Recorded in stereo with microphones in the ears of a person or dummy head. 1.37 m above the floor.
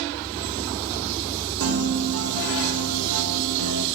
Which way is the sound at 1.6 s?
70° right (ahead or behind).